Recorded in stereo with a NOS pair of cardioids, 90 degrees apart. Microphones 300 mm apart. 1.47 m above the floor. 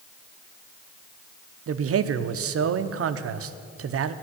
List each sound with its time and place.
1.7 s a man speaking: 50° right, 0.8 m